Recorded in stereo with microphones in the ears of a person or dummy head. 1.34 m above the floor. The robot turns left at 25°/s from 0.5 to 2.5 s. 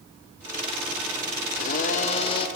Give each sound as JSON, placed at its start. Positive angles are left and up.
{"t": 1.5, "sound": "a blender", "side_deg": 50, "distance_m": 0.8}